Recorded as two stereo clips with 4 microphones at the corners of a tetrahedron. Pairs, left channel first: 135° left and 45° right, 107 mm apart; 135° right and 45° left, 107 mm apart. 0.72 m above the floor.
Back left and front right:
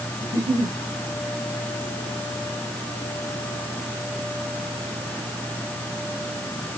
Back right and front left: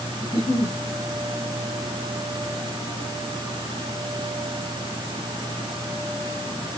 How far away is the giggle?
About 1.9 m.